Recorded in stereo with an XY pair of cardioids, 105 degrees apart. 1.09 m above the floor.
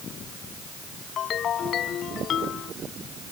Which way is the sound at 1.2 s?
60° left.